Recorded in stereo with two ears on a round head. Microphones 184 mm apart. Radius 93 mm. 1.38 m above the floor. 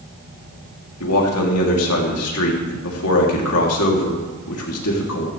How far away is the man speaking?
About 3 m.